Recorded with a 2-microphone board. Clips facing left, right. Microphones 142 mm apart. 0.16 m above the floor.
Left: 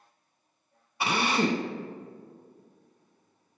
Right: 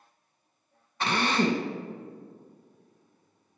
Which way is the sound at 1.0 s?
10° left (ahead or behind).